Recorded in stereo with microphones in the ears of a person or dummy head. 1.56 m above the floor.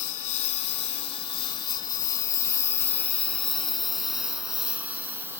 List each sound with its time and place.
0.0 s a lawn mower: 45° left (ahead or behind); by 5.4 s 10° right (ahead or behind)